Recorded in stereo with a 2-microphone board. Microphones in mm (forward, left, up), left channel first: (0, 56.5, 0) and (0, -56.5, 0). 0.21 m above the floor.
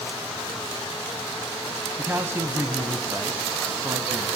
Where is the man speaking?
20° right (ahead or behind), 1.5 m.